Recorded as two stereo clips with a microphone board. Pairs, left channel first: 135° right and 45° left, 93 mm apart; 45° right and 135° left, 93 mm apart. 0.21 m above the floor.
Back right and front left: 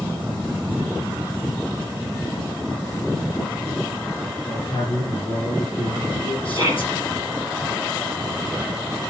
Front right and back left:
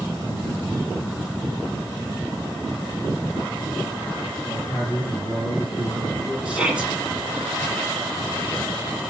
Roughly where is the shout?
Behind right.